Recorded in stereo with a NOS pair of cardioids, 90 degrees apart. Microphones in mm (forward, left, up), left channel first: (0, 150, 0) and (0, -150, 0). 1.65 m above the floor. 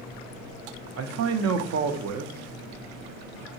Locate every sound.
1.0 s a man speaking: 60° right, 0.5 m